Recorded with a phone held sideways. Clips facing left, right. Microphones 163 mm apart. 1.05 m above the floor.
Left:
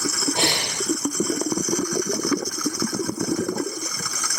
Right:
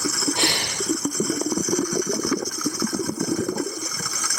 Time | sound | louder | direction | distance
0.3 | breathing | left 1 dB | 20° left (ahead or behind) | 3.5 m